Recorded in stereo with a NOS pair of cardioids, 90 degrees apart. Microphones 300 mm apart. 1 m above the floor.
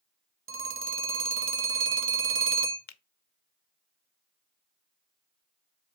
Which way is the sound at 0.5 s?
45° right.